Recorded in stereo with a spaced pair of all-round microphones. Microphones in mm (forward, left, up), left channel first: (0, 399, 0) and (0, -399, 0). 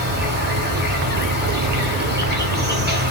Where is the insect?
15° right (ahead or behind), 0.7 m.